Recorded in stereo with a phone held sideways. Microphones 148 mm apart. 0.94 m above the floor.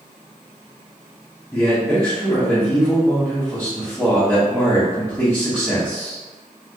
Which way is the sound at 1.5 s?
15° left (ahead or behind).